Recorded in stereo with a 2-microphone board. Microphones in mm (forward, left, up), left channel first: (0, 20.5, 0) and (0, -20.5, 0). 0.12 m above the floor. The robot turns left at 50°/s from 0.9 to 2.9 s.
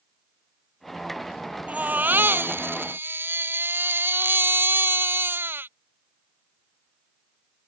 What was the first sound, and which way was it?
A baby crying, 40° right.